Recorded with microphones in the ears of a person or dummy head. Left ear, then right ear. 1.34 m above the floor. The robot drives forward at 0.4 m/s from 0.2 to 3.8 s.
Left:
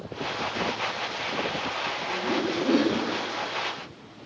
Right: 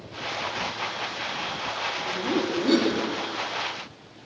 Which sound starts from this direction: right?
Laughter, at 2.1 s.